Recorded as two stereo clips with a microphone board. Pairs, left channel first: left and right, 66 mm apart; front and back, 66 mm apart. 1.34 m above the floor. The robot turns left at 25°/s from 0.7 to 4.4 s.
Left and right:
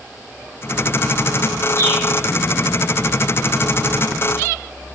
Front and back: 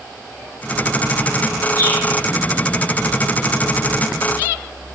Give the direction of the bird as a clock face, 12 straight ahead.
10 o'clock.